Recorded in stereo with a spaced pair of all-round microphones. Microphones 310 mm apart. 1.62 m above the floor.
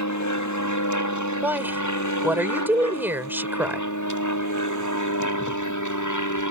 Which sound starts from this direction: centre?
A woman speaking, at 1.4 s.